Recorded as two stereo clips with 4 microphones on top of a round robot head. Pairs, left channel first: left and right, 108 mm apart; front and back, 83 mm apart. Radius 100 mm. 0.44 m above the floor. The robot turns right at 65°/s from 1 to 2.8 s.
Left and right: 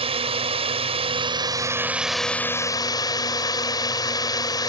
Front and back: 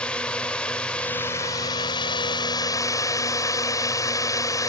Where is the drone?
75° right; by 4.7 s 40° left.